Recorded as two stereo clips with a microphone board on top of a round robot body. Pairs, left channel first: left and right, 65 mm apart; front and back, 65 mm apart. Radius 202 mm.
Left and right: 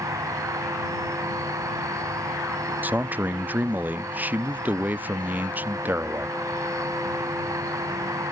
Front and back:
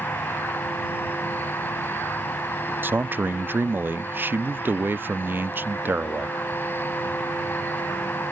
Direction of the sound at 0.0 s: 60° right.